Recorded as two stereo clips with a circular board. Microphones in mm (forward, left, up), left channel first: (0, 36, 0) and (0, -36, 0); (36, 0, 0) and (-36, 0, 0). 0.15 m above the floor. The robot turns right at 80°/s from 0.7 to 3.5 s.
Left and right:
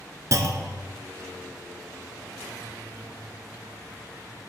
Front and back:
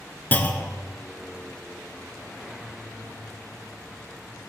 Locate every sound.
0.3 s a clunk: 60° right, 0.6 m; by 0.9 s 45° right, 0.6 m